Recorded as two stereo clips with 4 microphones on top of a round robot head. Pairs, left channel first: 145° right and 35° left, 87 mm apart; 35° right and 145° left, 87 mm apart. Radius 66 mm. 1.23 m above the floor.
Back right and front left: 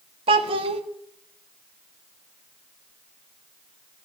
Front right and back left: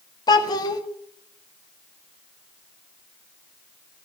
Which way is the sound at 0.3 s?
10° left.